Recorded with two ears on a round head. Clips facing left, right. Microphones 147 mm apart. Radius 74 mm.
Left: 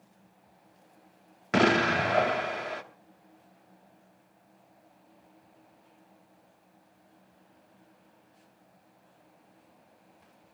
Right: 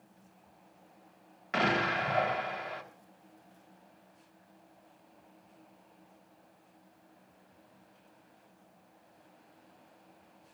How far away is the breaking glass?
I don't hear breaking glass.